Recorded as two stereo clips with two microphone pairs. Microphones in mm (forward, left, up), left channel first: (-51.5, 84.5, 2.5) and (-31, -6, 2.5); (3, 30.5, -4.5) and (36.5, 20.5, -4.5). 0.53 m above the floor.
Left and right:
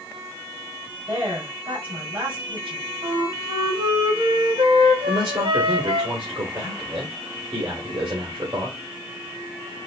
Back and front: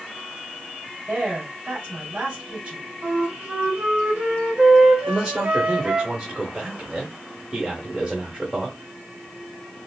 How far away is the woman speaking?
About 2.5 m.